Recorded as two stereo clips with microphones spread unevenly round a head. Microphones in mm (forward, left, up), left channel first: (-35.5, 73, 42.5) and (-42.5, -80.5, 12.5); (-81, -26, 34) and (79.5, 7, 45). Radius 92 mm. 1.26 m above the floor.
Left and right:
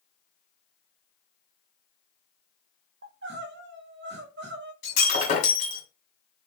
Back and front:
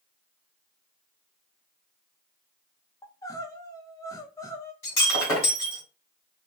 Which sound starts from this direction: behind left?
Breaking glass, at 4.8 s.